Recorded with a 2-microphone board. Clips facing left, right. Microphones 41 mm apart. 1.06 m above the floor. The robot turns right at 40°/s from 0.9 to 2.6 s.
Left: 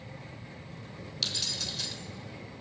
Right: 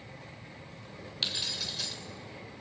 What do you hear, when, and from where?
1.2 s keys jangling: 25° right (ahead or behind), 3 m; by 1.9 s centre (ahead or behind), 3 m